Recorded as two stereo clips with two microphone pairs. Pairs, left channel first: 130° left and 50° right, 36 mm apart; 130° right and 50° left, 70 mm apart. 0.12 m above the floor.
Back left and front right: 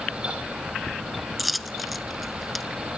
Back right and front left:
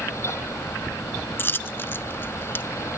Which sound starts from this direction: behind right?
A dropped coin, at 1.4 s.